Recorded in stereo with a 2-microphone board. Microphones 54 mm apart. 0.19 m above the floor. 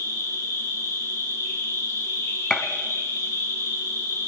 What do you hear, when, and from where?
0.0 s an insect: 85° left, 8 m
2.5 s a gunshot: 10° left (ahead or behind), 1.1 m